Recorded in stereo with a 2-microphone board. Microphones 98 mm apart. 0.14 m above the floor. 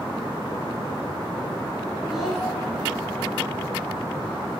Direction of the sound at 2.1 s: 5° right (ahead or behind).